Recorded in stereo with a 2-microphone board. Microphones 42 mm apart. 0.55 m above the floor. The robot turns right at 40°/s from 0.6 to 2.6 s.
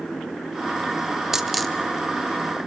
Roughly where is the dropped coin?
Centre.